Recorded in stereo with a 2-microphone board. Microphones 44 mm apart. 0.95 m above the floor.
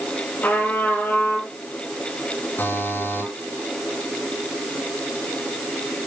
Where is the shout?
I don't hear a shout.